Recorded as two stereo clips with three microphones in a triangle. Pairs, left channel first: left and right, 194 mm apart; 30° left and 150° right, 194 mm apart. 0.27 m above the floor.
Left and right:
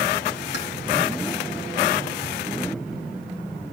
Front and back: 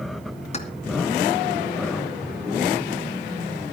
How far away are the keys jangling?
About 2 m.